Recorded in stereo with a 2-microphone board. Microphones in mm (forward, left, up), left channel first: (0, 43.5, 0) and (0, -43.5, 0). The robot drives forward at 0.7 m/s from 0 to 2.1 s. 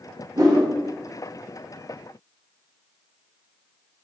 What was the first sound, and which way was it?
A whoosh, 45° right (ahead or behind).